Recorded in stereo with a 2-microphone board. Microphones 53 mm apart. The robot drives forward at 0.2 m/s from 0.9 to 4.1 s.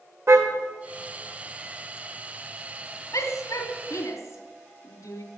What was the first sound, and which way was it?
A car horn, 60° right (ahead or behind).